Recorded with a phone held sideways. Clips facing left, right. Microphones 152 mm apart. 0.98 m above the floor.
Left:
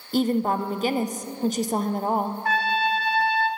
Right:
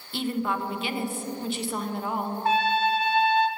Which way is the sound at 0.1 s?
40° left (ahead or behind).